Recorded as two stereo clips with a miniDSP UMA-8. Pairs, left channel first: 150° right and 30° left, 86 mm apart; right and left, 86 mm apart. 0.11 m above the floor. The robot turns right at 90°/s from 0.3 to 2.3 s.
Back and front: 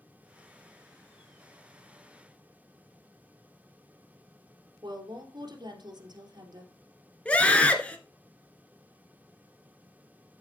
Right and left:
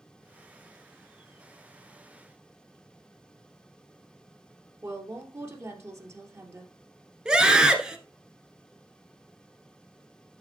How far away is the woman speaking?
About 2 m.